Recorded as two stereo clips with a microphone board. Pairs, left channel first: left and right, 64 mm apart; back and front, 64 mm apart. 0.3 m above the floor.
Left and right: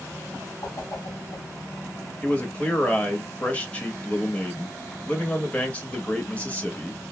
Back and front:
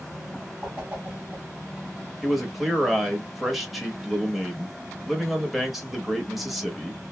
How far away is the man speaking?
About 0.9 m.